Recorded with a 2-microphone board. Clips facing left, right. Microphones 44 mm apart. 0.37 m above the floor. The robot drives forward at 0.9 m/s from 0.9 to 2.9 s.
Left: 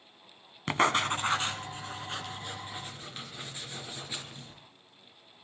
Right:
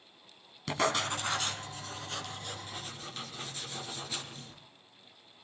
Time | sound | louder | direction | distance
0.7 | writing | left 4 dB | 35° left (ahead or behind) | 1.8 m